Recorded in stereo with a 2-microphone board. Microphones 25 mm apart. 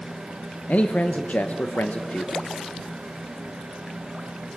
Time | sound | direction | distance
0.7 | a man speaking | 85° left | 0.9 m